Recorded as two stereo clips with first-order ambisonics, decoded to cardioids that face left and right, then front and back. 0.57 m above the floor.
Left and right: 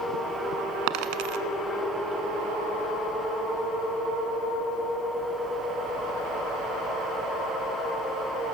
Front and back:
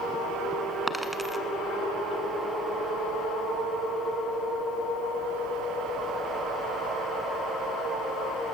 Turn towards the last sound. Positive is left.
turn(degrees=-90)